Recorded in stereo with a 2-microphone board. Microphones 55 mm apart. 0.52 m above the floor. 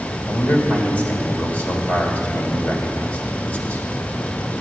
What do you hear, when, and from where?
0.3 s a man speaking: 25° left (ahead or behind), 1.7 m